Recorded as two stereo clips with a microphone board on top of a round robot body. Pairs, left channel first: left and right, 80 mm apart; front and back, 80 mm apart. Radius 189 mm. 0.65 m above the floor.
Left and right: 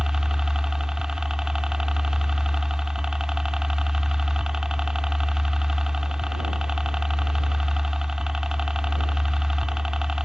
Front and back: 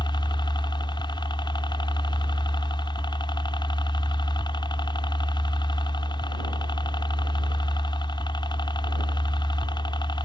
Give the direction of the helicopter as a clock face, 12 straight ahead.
12 o'clock.